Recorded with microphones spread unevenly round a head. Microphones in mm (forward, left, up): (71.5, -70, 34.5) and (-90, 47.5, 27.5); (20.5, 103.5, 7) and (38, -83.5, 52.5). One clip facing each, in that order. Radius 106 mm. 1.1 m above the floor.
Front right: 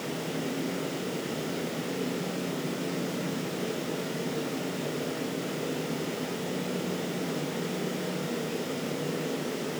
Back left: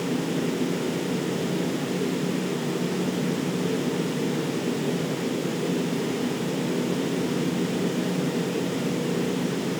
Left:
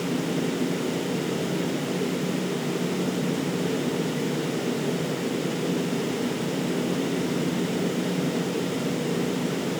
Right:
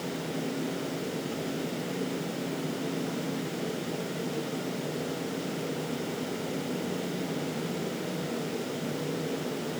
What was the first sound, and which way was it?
Only background noise.